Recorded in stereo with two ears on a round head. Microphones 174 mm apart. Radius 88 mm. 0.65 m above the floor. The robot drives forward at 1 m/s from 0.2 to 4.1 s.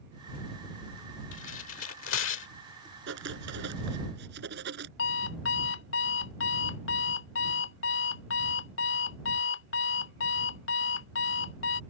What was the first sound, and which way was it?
Tearing paper, 65° left (ahead or behind).